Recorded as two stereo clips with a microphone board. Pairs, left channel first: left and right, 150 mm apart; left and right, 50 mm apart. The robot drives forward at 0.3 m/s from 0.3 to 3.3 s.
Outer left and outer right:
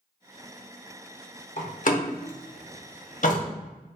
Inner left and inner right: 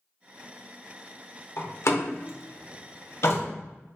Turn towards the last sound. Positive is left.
turn(degrees=60)  # may be behind; listen again after turning